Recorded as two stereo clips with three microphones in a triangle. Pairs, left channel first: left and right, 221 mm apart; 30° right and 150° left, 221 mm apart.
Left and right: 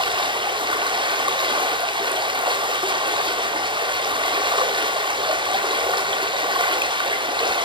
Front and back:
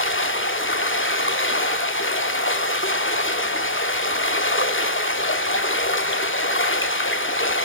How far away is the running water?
About 1.4 m.